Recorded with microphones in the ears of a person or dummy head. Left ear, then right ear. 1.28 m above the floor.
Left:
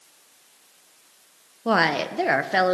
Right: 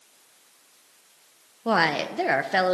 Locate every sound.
1.6 s a woman speaking: 5° right (ahead or behind), 1.0 m